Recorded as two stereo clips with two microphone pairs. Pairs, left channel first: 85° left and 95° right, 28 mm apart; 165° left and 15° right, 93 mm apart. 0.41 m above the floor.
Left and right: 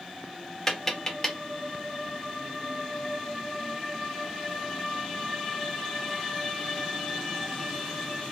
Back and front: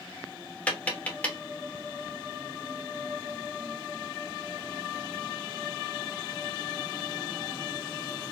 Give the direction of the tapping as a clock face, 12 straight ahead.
8 o'clock.